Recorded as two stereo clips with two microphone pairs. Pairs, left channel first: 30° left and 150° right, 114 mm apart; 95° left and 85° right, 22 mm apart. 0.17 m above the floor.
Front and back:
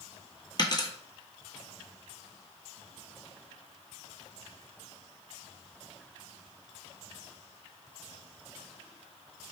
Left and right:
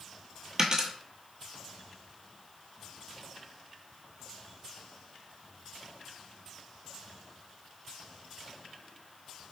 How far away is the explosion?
No explosion in this recording.